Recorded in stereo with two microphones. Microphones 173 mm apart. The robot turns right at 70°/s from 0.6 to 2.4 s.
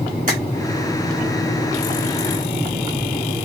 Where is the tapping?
50° right (ahead or behind), 2.0 m.